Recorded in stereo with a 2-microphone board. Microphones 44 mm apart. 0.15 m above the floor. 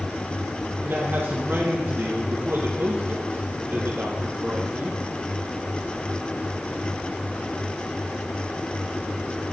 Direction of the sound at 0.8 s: 55° right (ahead or behind).